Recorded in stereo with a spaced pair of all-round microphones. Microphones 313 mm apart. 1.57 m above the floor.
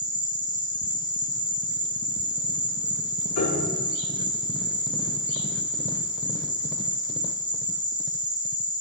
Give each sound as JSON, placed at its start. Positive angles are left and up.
{"t": 0.0, "sound": "an insect", "side_deg": 25, "distance_m": 0.9}
{"t": 3.4, "sound": "a piano", "side_deg": 55, "distance_m": 1.0}